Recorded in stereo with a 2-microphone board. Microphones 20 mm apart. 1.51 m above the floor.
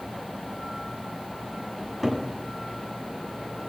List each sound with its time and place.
1.8 s a cupboard door: 10° right (ahead or behind), 8.5 m